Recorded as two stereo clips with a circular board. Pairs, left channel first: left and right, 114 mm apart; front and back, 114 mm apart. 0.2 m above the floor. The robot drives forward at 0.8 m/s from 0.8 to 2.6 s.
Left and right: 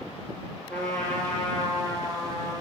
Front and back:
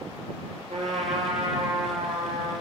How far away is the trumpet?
About 0.8 m.